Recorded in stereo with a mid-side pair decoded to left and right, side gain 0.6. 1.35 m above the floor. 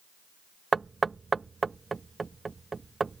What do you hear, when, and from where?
0.7 s knocking: 20° right